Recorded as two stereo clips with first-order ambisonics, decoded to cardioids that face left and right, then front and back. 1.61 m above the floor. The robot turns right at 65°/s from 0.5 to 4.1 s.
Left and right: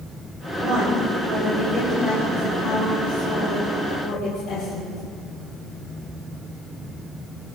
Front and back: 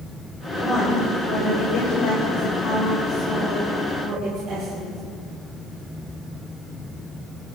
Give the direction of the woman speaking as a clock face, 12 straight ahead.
3 o'clock.